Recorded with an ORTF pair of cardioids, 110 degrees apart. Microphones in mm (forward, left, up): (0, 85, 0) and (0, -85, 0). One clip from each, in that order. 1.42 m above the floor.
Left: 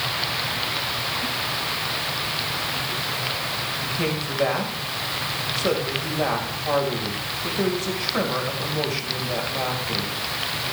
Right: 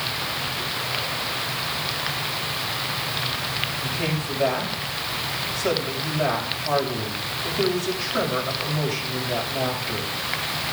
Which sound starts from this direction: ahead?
A man speaking, at 3.8 s.